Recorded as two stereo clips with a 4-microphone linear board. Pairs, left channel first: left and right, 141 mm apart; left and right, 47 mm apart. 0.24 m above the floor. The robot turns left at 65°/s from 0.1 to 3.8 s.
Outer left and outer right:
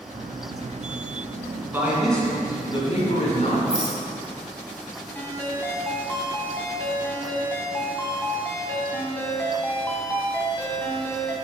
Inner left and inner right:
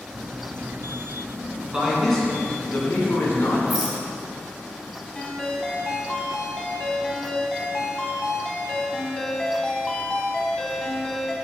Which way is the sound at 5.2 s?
15° left (ahead or behind).